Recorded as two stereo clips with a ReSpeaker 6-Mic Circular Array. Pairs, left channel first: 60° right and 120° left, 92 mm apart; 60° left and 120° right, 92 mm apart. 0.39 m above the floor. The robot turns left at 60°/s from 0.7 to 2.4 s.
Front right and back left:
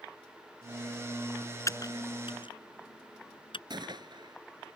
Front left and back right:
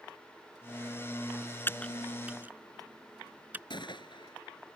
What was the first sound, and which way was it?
Typing on a keyboard, 5° right.